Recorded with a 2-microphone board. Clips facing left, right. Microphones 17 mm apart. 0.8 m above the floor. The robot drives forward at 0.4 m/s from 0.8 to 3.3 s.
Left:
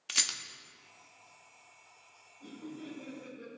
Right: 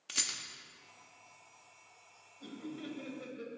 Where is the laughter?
35° right (ahead or behind), 5 m; by 3.5 s 40° right (ahead or behind), 4.5 m.